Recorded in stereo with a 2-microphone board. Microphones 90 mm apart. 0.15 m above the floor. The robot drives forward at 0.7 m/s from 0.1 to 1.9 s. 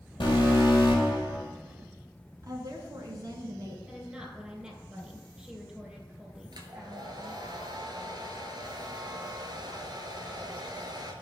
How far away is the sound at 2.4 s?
About 2 m.